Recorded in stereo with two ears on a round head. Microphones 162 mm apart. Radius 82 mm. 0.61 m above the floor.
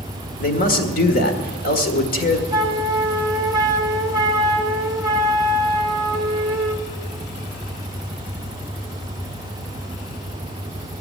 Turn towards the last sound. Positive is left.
turn(degrees=-20)  # may be behind; listen again after turning